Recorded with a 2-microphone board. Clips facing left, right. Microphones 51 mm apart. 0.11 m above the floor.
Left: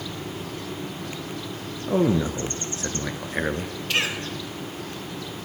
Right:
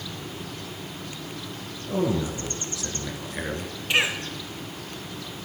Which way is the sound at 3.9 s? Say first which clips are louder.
Right 2 dB; 15° right (ahead or behind).